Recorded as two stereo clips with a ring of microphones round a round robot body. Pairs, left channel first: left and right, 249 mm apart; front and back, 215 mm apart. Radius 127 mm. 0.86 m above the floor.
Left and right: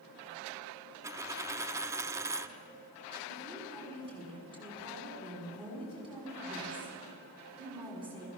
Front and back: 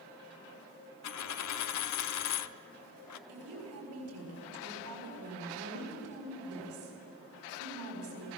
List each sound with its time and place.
1.0 s a dropped coin: 10° right, 0.7 m
3.3 s a woman speaking: 160° right, 6.5 m